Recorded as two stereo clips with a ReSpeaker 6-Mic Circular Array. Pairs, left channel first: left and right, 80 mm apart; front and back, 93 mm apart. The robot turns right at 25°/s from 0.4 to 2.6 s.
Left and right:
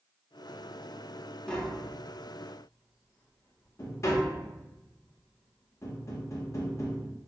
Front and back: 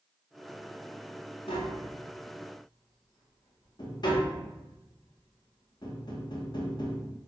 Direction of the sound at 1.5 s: 10° left.